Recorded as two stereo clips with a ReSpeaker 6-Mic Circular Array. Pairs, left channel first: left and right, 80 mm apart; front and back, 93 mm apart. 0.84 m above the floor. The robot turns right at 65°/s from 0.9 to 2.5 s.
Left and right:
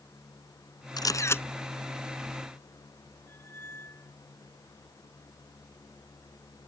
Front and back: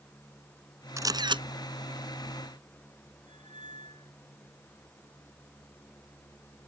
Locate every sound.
1.0 s a camera shutter: 125° left; by 1.4 s 155° left
3.3 s a squeak: 30° left